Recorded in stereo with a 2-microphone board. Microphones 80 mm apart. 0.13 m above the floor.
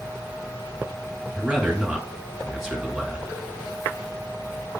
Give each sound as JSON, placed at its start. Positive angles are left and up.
{"t": 1.4, "sound": "a man speaking", "side_deg": -5, "distance_m": 1.5}